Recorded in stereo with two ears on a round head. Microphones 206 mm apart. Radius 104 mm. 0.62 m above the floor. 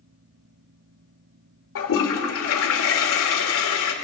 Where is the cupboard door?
I don't hear a cupboard door.